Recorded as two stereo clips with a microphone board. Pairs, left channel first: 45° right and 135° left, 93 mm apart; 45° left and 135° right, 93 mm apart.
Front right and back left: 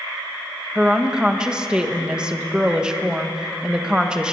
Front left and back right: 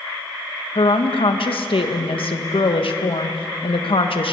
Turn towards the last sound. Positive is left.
turn(degrees=55)